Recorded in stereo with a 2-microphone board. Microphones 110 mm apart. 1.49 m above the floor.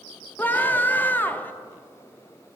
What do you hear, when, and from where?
0.4 s a scream: 20° left (ahead or behind), 0.5 m